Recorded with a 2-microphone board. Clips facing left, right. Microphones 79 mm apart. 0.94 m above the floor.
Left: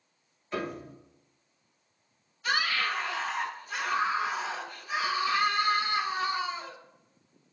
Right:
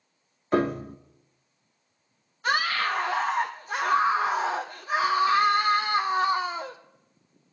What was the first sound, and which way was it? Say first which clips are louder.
A piano: right 10 dB; 45° right (ahead or behind).